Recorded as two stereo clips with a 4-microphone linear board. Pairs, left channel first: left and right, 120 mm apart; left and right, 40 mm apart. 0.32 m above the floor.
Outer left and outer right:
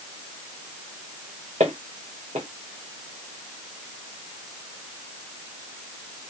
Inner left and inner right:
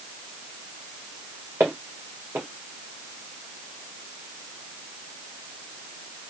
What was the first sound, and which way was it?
Footsteps, 80° right.